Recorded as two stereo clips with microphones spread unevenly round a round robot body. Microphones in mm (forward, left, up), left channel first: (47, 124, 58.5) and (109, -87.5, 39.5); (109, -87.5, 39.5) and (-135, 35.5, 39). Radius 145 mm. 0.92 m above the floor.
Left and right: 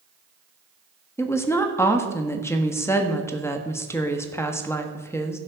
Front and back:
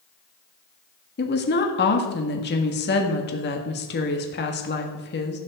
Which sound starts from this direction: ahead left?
A woman speaking, at 1.2 s.